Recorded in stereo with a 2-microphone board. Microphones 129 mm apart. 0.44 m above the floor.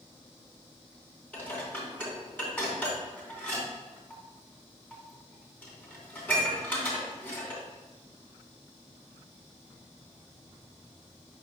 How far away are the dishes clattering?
About 2.5 m.